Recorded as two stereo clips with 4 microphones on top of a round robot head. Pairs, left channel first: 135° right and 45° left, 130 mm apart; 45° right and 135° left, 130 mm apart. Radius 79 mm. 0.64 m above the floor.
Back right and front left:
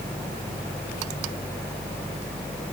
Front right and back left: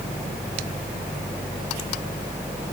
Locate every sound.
Only background noise.